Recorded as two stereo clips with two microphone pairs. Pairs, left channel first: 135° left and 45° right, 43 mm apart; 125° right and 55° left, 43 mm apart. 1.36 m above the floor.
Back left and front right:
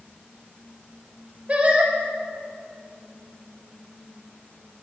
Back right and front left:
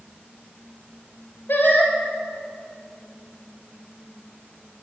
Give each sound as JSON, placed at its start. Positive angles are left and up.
{"t": 1.5, "sound": "singing", "azimuth_deg": -100, "distance_m": 2.5}